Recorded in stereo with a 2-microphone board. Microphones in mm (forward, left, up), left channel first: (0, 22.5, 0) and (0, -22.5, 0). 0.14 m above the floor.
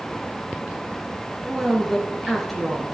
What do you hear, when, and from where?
1.4 s a woman speaking: 5° left (ahead or behind), 2.5 m